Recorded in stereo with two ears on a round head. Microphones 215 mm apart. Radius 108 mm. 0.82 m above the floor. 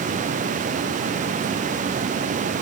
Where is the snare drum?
No snare drum in this recording.